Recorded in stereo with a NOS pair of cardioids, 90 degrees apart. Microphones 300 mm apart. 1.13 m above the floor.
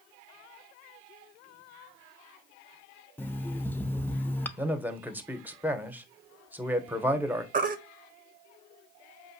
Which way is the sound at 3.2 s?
5° left.